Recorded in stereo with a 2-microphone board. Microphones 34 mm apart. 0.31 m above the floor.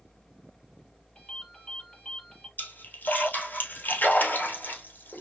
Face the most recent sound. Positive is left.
turn(degrees=60)  # may be behind; listen again after turning